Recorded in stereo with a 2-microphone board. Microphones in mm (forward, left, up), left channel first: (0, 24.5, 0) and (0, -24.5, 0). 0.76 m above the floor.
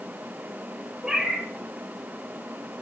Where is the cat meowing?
15° right (ahead or behind), 4 m.